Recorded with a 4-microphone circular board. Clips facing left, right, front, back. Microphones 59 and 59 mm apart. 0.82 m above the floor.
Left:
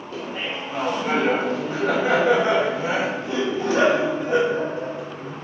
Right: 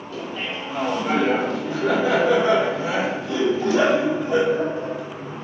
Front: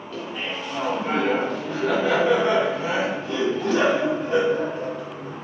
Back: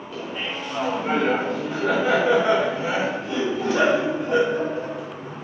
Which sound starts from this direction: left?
Laughter, at 0.1 s.